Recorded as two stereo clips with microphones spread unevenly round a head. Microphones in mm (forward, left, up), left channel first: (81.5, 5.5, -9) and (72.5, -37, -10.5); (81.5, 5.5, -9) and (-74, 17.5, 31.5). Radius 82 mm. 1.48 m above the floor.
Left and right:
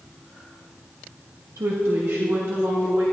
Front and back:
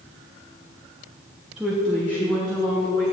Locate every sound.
1.6 s a woman speaking: 100° right, 0.9 m; by 3.0 s 85° right, 3 m